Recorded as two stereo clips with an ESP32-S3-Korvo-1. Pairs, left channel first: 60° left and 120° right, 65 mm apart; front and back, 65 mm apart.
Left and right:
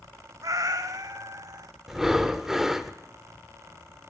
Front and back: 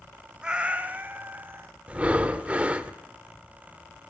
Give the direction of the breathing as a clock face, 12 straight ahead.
6 o'clock.